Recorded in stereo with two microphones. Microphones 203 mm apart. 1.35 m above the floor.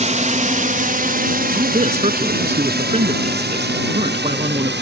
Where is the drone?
35° right (ahead or behind); by 4.8 s 65° right (ahead or behind).